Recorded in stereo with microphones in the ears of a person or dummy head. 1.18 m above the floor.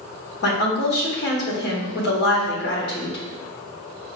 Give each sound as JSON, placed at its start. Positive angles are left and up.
{"t": 0.4, "sound": "a woman speaking", "side_deg": 55, "distance_m": 1.1}